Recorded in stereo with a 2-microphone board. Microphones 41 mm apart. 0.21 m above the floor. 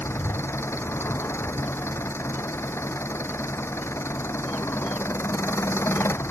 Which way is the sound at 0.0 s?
75° left (ahead or behind).